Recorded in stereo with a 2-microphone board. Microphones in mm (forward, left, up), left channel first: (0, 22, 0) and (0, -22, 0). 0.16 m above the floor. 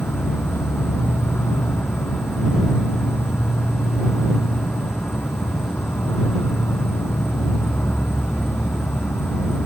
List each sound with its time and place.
0.0 s an insect: 75° left (ahead or behind)